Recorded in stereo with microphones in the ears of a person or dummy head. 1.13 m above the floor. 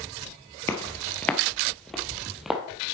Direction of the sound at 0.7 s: 15° left (ahead or behind).